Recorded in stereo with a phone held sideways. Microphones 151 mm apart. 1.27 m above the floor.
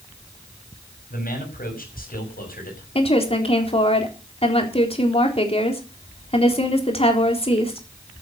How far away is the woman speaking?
About 3.5 m.